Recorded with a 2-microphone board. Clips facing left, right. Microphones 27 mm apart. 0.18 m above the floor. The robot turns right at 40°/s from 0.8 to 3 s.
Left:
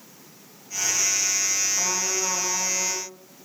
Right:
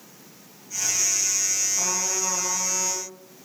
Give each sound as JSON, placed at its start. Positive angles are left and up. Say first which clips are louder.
{"t": 1.7, "sound": "a trumpet", "louder": "left 1 dB", "azimuth_deg": 15, "distance_m": 8.0}